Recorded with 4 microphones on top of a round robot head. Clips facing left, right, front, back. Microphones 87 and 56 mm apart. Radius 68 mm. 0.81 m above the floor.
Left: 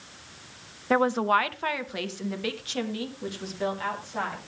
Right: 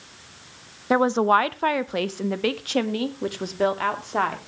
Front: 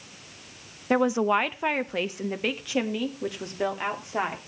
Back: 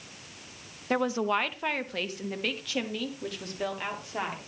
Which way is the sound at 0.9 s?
45° right.